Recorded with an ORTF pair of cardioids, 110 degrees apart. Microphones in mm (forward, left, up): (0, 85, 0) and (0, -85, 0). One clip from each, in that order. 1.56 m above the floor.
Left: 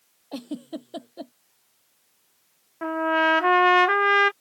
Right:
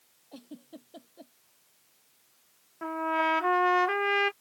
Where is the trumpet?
35° left.